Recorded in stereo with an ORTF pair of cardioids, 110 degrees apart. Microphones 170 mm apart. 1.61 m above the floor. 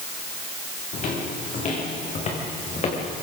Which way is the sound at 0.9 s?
50° left.